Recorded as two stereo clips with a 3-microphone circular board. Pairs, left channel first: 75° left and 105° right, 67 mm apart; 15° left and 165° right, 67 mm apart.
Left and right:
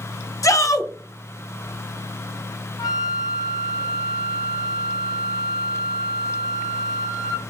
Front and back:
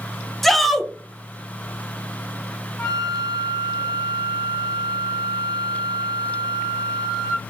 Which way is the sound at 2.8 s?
85° left.